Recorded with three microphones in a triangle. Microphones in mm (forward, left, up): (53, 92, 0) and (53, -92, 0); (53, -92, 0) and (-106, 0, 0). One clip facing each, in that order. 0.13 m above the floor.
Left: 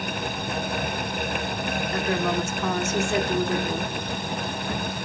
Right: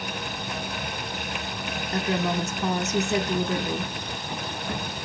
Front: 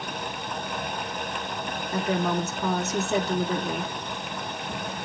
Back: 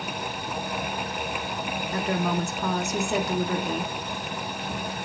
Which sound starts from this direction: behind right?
A woman speaking, at 1.9 s.